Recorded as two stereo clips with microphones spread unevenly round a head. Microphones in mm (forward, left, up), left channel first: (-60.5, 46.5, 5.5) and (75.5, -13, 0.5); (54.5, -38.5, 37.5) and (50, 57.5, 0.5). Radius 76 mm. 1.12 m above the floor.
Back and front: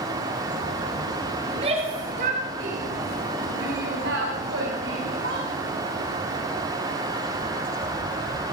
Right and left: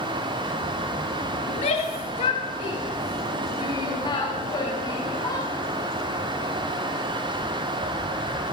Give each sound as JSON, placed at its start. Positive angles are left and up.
{"t": 1.5, "sound": "a shout", "azimuth_deg": -85, "distance_m": 3.5}